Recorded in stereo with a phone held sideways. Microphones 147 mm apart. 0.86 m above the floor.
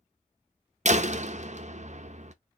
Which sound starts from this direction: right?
A door slam, at 0.8 s.